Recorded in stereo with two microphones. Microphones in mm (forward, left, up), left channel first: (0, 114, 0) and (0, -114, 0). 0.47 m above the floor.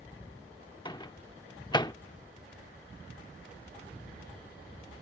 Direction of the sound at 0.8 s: 20° left (ahead or behind).